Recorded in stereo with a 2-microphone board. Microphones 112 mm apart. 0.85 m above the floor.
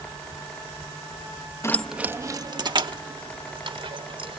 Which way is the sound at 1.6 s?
25° left (ahead or behind).